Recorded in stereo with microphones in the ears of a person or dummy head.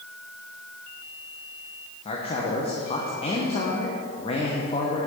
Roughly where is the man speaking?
Left.